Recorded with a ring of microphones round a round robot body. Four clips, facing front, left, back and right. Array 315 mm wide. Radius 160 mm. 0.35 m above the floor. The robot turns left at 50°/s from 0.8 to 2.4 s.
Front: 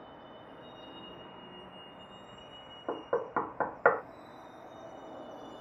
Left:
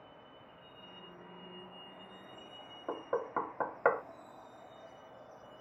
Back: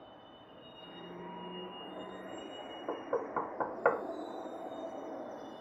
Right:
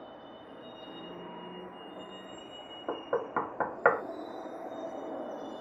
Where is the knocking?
55° right.